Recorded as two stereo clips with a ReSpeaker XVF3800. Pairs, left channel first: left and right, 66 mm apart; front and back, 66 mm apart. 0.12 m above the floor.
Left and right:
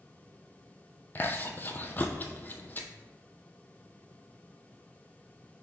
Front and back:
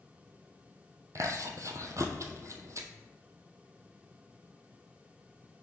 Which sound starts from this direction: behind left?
Chewing, at 1.1 s.